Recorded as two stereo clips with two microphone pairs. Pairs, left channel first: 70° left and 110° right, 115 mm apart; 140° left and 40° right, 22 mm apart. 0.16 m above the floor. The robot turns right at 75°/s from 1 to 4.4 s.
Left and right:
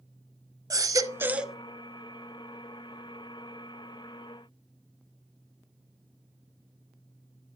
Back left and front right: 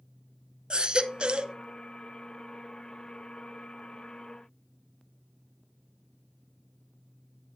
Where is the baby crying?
60° right, 0.6 m; by 1.6 s 20° right, 0.6 m.